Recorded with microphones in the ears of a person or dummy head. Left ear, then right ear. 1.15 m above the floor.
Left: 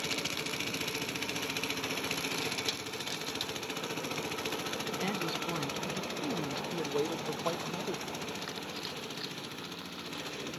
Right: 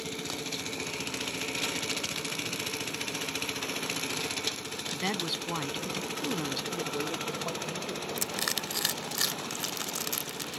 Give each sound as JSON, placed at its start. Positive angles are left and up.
{"t": 4.9, "sound": "a woman speaking", "side_deg": -20}
{"t": 6.7, "sound": "a man speaking", "side_deg": 75}
{"t": 8.2, "sound": "crushing", "side_deg": -70}